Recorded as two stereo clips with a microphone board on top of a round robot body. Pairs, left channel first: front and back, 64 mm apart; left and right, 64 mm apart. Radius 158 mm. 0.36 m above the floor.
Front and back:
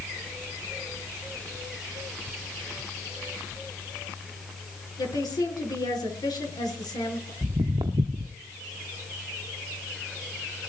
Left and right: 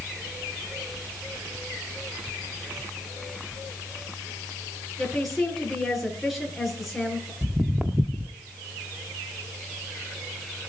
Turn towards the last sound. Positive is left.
turn(degrees=-165)